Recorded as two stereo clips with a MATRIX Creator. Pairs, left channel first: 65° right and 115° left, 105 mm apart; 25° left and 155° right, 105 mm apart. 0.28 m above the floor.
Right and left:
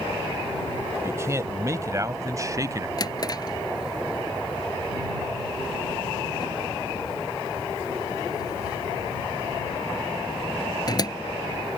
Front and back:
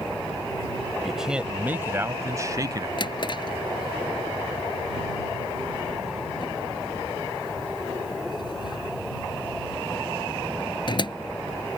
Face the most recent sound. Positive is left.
turn(degrees=-20)